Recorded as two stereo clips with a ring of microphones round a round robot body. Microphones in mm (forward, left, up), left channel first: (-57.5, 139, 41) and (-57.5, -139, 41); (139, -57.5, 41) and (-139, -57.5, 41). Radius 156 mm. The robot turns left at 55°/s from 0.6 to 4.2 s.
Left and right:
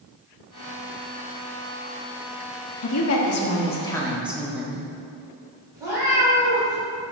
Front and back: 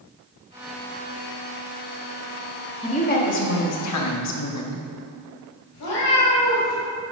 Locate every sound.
2.8 s a woman speaking: 70° left, 1.2 m; by 4.8 s 5° right, 1.2 m
5.7 s a cat meowing: 10° right, 2.5 m